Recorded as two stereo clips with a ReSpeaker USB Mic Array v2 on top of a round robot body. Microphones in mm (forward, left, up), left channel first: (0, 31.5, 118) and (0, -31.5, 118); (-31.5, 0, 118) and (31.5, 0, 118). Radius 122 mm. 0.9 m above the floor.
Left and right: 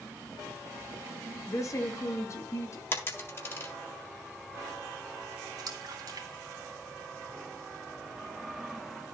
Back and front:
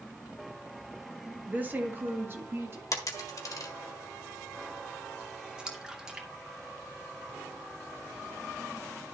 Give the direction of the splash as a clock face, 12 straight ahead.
3 o'clock.